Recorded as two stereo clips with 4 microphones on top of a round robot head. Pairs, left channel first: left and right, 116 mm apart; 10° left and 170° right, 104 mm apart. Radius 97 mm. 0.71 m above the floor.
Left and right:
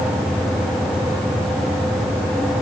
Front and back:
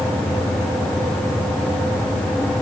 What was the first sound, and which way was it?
Only background noise.